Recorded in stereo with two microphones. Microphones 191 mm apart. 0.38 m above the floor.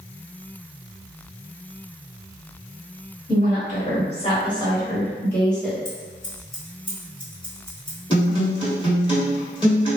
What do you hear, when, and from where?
3.3 s a woman speaking: 50° left (ahead or behind), 1.5 m; by 5.8 s centre (ahead or behind), 1.9 m
5.8 s scissors: 25° left (ahead or behind), 1.2 m
8.1 s a guitar: 25° left (ahead or behind), 1.3 m